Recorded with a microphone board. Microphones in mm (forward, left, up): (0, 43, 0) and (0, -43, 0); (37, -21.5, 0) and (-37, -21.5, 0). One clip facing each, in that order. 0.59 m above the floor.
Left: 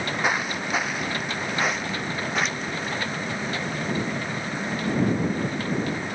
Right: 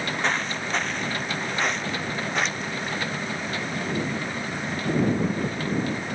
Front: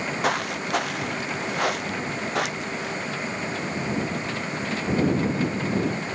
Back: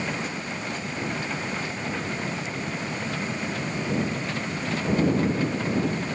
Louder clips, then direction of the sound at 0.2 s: Left 2 dB, front 6 dB; 10° left.